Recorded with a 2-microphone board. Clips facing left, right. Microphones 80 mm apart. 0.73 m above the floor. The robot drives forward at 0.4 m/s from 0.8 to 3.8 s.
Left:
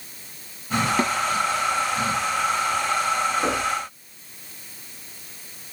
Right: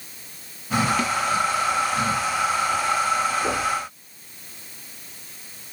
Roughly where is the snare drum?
Left.